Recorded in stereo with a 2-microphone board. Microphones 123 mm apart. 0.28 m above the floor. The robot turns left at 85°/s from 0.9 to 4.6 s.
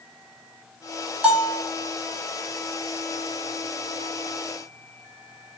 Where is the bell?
170° right, 1.0 m; by 1.6 s 155° left, 1.0 m.